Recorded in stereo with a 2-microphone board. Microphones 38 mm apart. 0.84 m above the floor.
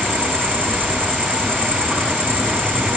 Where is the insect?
15° left (ahead or behind), 7 m.